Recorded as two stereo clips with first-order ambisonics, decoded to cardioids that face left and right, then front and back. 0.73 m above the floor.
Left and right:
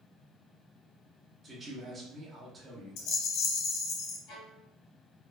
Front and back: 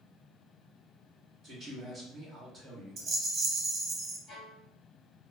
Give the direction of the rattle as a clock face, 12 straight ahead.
8 o'clock.